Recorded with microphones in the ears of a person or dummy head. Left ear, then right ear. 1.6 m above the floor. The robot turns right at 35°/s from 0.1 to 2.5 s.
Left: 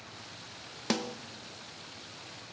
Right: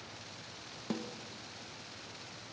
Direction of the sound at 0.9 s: 45° left (ahead or behind).